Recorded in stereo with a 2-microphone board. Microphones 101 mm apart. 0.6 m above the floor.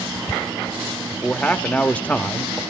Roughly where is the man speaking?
Centre.